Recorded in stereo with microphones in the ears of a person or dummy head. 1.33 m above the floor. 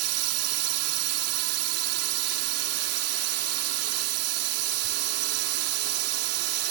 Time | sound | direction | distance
0.0 | a drone | 85° right | ?